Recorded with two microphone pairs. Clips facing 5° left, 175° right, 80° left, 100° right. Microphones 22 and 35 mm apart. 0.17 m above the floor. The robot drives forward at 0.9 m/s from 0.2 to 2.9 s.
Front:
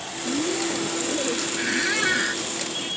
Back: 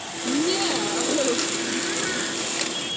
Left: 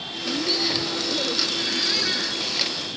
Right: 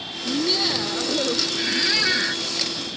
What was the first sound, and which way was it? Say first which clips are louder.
Laughter: back 3 dB, right 2 dB; 165° right.